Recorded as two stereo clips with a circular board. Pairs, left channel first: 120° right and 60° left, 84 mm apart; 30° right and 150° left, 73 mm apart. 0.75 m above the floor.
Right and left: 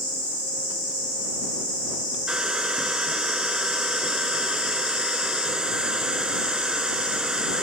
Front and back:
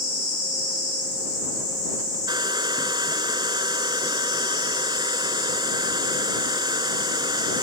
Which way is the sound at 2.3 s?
140° left.